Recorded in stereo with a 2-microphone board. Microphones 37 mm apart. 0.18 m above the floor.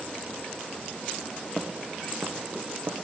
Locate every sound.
1.6 s footsteps: 10° right (ahead or behind), 1.0 m; by 3.1 s 85° right, 1.4 m